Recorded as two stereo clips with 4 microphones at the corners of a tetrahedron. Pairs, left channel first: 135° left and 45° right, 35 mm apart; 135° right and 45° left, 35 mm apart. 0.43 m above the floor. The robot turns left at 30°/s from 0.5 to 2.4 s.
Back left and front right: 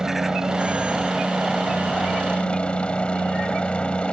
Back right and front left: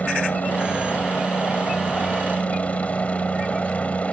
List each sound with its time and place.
0.0 s a helicopter: 115° right; by 4.1 s 170° right